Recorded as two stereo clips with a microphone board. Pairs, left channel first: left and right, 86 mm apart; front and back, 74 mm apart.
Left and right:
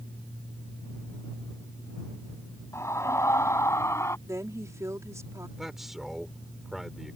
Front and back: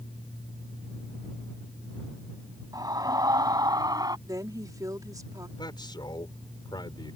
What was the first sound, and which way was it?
A scream, 145° left.